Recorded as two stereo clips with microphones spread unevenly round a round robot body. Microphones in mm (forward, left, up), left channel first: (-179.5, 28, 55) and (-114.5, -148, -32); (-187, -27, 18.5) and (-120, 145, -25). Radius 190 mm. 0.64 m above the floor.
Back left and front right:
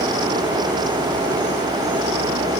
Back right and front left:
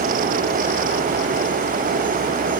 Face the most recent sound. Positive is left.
No sound to turn to.